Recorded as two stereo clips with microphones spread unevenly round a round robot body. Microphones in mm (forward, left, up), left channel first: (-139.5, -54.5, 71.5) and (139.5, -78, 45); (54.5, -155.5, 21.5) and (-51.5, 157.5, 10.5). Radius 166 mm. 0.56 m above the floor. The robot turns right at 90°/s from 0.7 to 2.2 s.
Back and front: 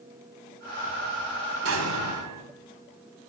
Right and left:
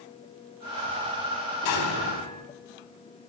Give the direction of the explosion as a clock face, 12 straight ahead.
2 o'clock.